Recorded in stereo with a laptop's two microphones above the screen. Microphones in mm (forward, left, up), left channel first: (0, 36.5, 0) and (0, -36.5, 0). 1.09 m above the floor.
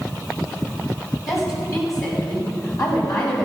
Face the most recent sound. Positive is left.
turn(degrees=65)  # may be behind; listen again after turning